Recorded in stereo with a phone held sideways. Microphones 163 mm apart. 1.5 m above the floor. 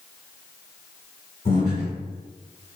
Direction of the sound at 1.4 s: 45° left (ahead or behind).